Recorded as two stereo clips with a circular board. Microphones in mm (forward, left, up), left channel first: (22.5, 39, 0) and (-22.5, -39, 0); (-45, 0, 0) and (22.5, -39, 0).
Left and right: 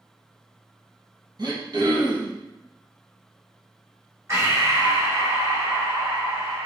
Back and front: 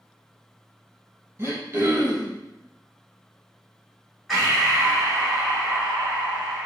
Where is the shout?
I don't hear a shout.